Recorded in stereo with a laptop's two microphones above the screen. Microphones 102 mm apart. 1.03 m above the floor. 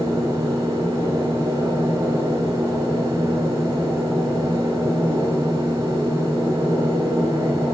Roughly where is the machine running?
Right.